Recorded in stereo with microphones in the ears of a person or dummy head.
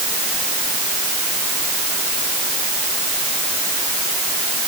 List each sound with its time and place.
Only background noise.